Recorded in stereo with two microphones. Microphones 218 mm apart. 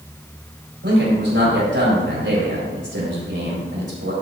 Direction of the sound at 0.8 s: 65° right (ahead or behind).